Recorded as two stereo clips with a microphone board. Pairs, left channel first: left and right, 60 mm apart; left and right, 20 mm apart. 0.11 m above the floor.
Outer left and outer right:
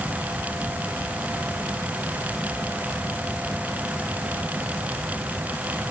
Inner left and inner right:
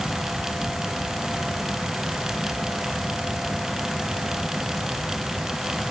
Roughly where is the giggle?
I don't hear a giggle.